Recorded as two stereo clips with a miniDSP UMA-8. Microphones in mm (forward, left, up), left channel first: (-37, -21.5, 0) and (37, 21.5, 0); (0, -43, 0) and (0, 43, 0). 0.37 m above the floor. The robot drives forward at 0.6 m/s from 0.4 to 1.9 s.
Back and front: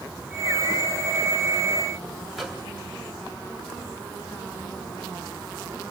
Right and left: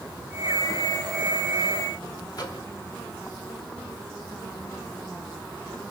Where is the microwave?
60° right, 1.6 m.